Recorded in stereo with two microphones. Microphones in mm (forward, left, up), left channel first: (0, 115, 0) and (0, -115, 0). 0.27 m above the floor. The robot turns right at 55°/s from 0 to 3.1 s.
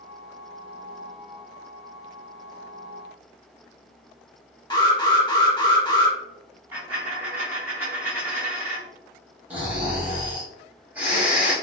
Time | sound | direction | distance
4.7 | an alarm | 20° left (ahead or behind) | 1.2 m
6.7 | a dropped coin | 10° right (ahead or behind) | 1.8 m
9.5 | snoring | 5° right (ahead or behind) | 1.2 m